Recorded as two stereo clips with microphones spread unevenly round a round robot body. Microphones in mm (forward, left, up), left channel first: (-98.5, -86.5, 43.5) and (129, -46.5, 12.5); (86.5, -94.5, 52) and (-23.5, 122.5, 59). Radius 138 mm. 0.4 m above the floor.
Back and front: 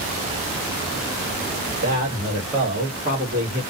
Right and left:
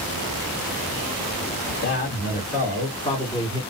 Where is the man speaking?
40° right, 1.7 m; by 3.6 s 5° left, 1.3 m.